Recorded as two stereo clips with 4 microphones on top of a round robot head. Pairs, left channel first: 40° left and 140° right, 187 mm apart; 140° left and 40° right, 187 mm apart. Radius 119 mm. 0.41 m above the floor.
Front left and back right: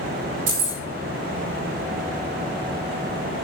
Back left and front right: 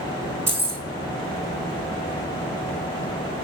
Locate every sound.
0.5 s keys jangling: 120° right, 3 m